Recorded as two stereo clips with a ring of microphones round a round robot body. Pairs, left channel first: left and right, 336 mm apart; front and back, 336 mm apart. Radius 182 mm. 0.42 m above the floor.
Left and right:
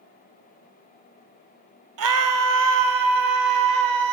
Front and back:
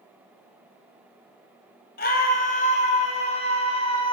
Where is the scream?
65° right, 1.9 m; by 4.1 s 75° right, 3 m.